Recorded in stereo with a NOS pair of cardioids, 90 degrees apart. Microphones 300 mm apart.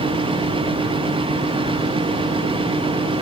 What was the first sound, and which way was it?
A fan, 20° right.